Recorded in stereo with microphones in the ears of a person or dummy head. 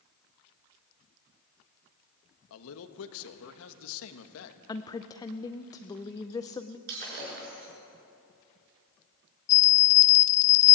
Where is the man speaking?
75° left (ahead or behind), 1.6 m.